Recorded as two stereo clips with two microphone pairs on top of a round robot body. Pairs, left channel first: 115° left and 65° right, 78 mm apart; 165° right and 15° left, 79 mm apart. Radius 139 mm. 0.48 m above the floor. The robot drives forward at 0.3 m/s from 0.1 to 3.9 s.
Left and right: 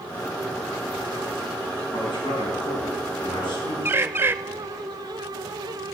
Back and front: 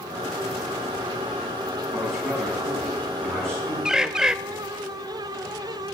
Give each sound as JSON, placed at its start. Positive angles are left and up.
{"t": 1.9, "sound": "a man speaking", "azimuth_deg": 105, "distance_m": 5.5}
{"t": 3.9, "sound": "a bird", "azimuth_deg": -20, "distance_m": 0.5}